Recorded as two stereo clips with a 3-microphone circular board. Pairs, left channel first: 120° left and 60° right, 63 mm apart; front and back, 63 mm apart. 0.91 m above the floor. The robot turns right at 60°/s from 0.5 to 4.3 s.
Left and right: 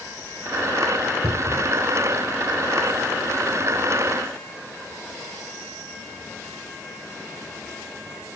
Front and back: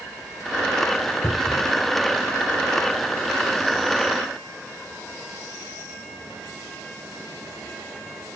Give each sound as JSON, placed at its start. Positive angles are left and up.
{"t": 1.2, "sound": "a cupboard door", "azimuth_deg": -50}